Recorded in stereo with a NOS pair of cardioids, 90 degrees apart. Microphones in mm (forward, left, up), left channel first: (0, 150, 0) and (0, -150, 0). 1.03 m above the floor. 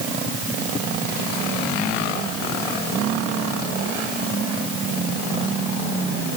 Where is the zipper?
I don't hear a zipper.